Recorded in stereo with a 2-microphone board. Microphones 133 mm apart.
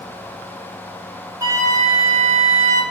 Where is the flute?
20° right (ahead or behind), 1.1 m.